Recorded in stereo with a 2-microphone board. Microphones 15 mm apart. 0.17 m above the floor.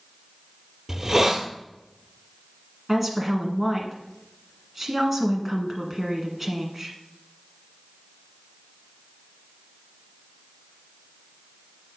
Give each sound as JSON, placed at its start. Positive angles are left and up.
{"t": 0.9, "sound": "a hiss", "side_deg": -30, "distance_m": 1.3}
{"t": 2.9, "sound": "a woman speaking", "side_deg": -15, "distance_m": 1.5}